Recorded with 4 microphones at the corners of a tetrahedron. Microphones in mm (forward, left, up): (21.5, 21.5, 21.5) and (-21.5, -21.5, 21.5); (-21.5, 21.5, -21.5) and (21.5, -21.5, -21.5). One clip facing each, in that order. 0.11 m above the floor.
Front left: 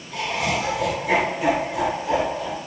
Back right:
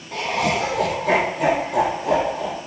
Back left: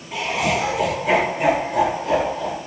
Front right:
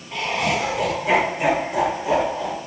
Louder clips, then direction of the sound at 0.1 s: Back right 3 dB, back left 1 dB; 140° right.